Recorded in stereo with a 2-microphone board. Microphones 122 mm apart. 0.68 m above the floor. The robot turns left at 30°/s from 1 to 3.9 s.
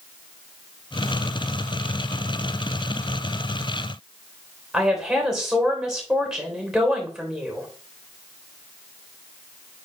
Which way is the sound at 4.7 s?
5° right (ahead or behind).